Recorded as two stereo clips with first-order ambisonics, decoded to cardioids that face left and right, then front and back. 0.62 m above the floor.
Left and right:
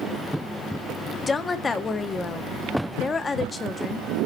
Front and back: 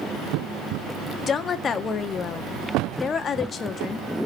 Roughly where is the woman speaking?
Ahead left.